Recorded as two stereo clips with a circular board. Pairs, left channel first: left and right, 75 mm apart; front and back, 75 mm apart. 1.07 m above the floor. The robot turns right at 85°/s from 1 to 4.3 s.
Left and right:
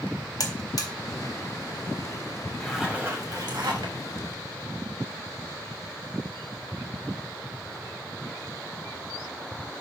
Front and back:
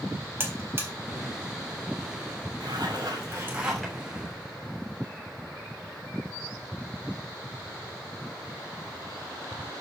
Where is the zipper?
170° left, 2.5 m; by 4.0 s 75° right, 2.5 m.